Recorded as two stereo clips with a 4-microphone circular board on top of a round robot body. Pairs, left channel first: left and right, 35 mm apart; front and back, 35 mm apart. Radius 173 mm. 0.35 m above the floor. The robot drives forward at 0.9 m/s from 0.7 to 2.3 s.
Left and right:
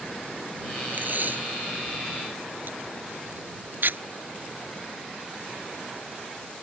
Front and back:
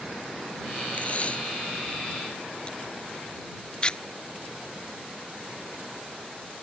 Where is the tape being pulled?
55° right; by 4.0 s 65° right.